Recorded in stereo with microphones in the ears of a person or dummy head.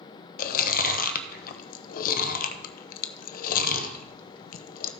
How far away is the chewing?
About 1.0 m.